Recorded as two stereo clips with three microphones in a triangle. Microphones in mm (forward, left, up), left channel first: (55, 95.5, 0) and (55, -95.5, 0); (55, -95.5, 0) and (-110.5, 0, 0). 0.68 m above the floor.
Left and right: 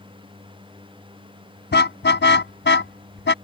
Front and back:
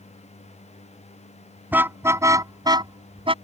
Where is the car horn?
70° left; by 3.3 s 90° left.